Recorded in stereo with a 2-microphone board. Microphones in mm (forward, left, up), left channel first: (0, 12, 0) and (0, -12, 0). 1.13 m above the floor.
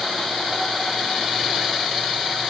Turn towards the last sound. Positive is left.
No sound to turn to.